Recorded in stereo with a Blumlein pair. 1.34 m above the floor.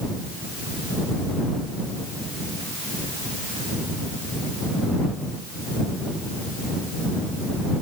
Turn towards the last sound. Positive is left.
No sound to turn to.